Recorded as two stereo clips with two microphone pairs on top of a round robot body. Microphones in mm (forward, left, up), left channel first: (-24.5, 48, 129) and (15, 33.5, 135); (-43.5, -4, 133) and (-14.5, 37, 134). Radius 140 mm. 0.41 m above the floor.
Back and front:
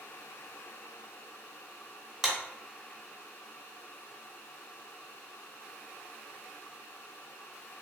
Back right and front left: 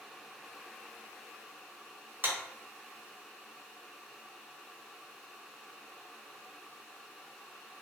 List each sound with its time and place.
2.2 s a clap: 70° left, 1.1 m